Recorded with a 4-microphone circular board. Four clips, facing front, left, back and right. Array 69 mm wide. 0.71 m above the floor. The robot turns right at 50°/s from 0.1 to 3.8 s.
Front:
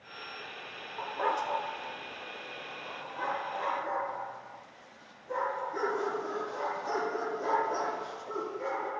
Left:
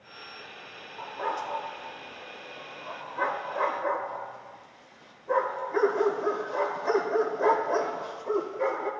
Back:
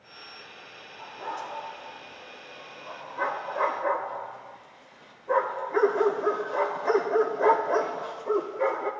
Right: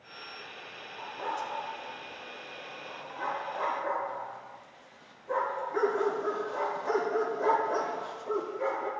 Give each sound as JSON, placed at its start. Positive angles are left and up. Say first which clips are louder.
{"t": 1.0, "sound": "a dog barking", "louder": "left 3 dB, front 5 dB", "azimuth_deg": 15, "distance_m": 1.1}